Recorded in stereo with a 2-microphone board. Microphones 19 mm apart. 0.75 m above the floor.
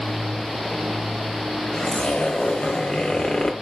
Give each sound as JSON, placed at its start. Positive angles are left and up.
{"t": 1.7, "sound": "a zipper", "side_deg": 70, "distance_m": 1.0}